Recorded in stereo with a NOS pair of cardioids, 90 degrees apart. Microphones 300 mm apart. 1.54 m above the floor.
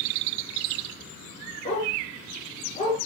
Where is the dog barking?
20° left, 7.5 m.